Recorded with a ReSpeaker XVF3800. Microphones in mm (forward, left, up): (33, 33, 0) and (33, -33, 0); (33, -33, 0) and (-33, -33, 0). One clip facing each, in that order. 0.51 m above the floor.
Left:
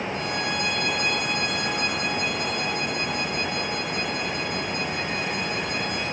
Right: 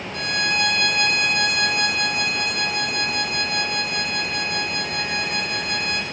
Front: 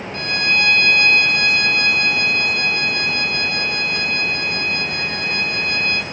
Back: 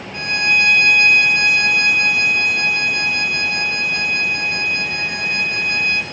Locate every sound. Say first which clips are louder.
0.1 s a violin: right 3 dB, back 2 dB; 110° right, 2.5 m